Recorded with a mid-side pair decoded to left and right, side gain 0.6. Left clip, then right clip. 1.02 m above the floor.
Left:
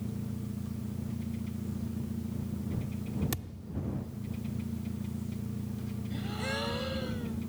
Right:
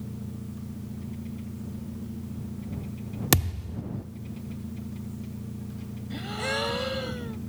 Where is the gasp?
35° right.